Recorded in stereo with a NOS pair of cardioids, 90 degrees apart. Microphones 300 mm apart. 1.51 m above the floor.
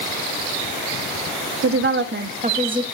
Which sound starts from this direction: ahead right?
A woman speaking, at 1.6 s.